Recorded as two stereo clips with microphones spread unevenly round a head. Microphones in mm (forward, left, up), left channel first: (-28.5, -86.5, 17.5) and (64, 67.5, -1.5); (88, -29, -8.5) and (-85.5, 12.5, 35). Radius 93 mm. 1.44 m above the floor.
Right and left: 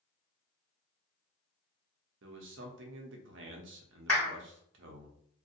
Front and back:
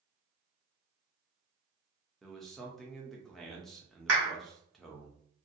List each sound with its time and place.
2.2 s a man speaking: 70° left, 0.6 m
4.1 s a clap: 155° left, 1.4 m